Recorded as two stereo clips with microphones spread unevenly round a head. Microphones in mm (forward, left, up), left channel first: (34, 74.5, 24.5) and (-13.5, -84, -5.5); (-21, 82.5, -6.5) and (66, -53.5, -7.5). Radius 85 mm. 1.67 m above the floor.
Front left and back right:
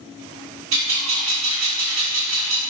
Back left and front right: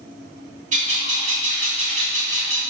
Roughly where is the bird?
Right.